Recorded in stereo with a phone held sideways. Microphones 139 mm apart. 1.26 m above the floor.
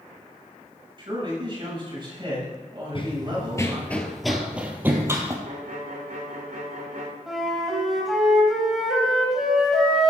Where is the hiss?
No hiss in this recording.